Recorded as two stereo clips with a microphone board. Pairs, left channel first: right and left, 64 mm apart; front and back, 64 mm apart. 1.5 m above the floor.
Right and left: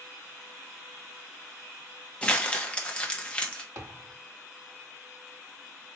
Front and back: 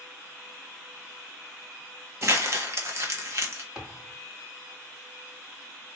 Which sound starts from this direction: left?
A thud, at 3.8 s.